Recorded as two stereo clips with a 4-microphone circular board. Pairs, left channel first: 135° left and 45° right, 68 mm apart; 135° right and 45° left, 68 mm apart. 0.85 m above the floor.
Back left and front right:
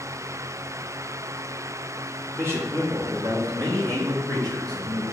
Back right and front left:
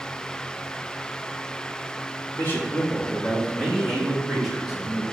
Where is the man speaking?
90° right, 1.7 m; by 5.0 s 35° right, 3.5 m.